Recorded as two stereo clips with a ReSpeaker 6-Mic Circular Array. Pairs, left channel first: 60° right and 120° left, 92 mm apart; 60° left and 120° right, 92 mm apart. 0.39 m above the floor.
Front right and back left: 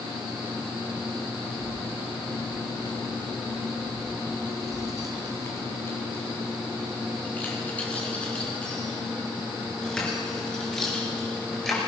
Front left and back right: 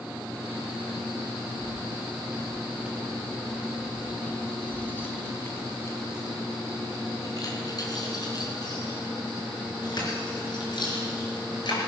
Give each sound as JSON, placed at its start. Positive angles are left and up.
{"t": 1.6, "sound": "keys jangling", "azimuth_deg": -60, "distance_m": 2.0}